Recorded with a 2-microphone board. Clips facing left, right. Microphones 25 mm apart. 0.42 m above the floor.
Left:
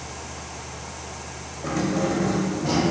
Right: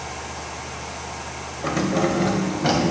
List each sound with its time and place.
1.6 s keys jangling: 30° right (ahead or behind), 1.0 m; by 2.8 s 70° right (ahead or behind), 1.4 m